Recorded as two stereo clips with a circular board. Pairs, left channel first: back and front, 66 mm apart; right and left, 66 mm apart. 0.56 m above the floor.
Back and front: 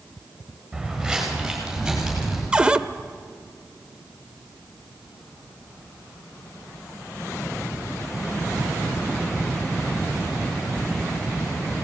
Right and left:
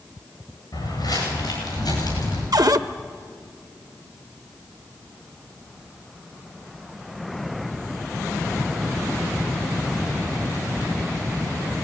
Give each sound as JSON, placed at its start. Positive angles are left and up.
{"t": 0.7, "sound": "footsteps", "azimuth_deg": -85, "distance_m": 9.0}
{"t": 2.5, "sound": "a cupboard door", "azimuth_deg": 75, "distance_m": 0.6}